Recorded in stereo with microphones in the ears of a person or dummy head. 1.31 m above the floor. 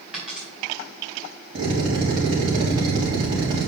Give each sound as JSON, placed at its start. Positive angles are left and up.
{"t": 0.1, "sound": "a dropped coin", "side_deg": -10, "distance_m": 3.5}
{"t": 1.6, "sound": "a drill", "side_deg": -55, "distance_m": 3.5}